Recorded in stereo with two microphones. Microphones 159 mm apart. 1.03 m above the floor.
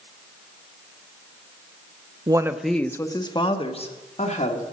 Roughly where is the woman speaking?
Right.